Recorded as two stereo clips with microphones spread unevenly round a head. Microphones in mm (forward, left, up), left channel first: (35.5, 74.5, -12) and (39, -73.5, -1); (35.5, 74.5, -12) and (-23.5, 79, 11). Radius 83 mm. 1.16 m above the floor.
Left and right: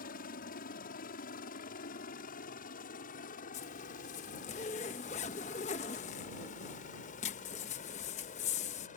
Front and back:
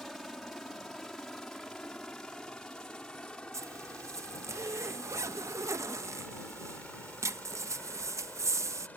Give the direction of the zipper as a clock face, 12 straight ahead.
7 o'clock.